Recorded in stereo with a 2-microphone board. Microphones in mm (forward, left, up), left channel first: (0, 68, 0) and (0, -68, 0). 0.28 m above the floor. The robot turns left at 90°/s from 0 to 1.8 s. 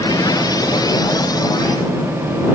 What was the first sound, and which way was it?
Only background noise.